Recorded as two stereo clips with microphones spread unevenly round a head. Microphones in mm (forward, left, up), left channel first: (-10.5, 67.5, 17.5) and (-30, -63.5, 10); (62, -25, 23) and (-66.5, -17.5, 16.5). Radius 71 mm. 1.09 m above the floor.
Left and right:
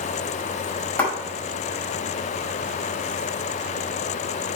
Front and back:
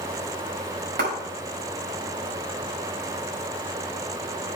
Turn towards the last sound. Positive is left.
turn(degrees=160)